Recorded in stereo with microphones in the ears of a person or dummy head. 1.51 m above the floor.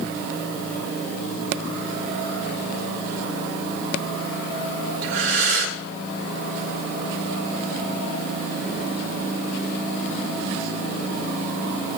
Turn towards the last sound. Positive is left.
turn(degrees=-80)